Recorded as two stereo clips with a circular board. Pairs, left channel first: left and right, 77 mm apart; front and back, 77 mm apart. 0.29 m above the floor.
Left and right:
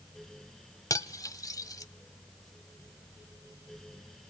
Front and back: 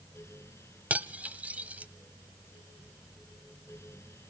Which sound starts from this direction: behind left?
Cutlery clinking, at 0.9 s.